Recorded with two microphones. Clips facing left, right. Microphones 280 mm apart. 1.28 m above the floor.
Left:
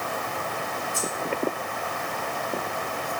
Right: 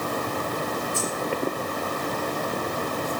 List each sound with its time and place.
0.9 s keys jangling: 40° right (ahead or behind), 6.5 m